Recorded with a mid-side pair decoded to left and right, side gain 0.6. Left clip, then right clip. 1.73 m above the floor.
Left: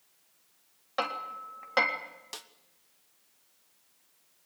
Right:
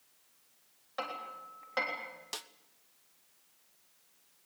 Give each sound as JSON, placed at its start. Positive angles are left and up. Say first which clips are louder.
{"t": 1.0, "sound": "hammering", "louder": "left 7 dB", "azimuth_deg": 40, "distance_m": 3.0}
{"t": 2.3, "sound": "a snare drum", "louder": "right 2 dB", "azimuth_deg": -10, "distance_m": 0.9}